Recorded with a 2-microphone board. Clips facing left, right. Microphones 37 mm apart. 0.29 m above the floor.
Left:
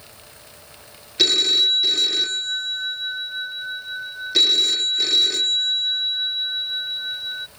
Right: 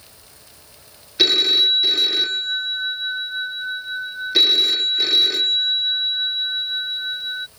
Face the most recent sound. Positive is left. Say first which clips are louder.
# right 2 dB
turn(degrees=-10)  # may be behind; listen again after turning